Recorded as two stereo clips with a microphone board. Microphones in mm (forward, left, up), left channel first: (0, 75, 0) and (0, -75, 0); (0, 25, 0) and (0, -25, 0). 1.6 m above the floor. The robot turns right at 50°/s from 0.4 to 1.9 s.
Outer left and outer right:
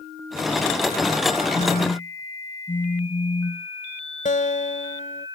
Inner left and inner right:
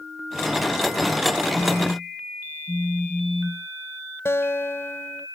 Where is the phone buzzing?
50° left (ahead or behind); by 3.7 s 35° left (ahead or behind).